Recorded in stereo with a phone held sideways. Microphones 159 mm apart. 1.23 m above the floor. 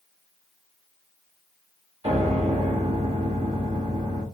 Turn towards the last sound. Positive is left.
turn(degrees=-40)  # may be behind; listen again after turning